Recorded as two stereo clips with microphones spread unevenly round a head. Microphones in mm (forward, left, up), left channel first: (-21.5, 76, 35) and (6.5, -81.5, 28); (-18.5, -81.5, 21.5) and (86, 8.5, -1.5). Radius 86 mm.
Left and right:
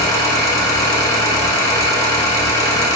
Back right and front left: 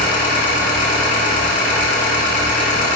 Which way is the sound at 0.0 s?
175° left.